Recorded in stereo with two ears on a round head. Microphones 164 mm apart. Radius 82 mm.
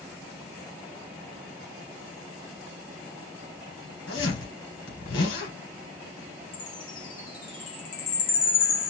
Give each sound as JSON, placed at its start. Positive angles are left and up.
{"t": 4.1, "sound": "a zipper", "side_deg": 75, "distance_m": 2.5}
{"t": 6.5, "sound": "a chime", "side_deg": 45, "distance_m": 1.5}